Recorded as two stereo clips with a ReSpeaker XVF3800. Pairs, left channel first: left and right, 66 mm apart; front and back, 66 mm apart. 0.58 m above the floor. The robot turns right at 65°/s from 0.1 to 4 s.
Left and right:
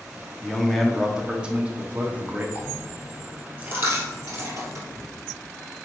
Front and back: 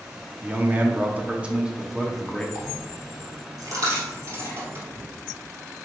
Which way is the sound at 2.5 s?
140° left.